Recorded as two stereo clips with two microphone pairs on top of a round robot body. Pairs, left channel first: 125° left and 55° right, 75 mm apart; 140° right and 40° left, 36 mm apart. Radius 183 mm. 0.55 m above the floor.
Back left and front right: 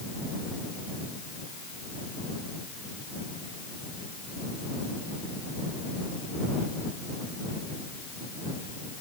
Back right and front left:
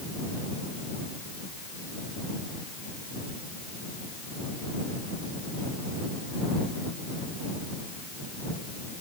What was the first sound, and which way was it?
Only background noise.